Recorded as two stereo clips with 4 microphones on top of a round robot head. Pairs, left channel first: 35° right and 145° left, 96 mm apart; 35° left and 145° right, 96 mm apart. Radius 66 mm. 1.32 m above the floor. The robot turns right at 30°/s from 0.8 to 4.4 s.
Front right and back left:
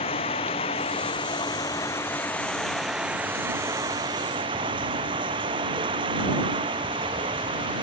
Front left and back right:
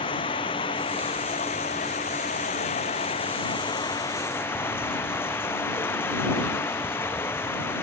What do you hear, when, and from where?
0.0 s running water: 5° right; by 7.8 s 105° left